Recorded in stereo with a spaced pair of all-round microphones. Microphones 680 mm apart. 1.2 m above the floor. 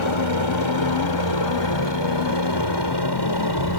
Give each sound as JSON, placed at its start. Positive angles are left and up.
{"t": 0.0, "sound": "a helicopter", "side_deg": 40}